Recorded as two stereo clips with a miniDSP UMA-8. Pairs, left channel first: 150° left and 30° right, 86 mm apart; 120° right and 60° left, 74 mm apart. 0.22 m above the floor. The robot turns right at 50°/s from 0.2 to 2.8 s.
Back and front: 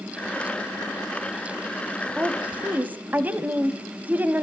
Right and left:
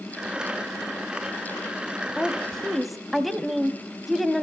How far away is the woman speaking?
About 1.0 m.